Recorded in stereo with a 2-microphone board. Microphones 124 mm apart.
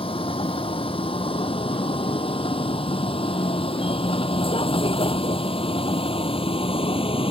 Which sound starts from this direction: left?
A vehicle, at 0.0 s.